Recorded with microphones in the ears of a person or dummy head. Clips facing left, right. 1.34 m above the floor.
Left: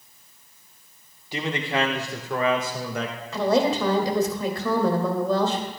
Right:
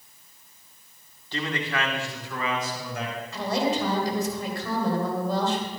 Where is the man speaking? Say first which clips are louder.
Left 3 dB; 15° left (ahead or behind), 1.2 m; by 3.1 s 60° left (ahead or behind), 1.7 m.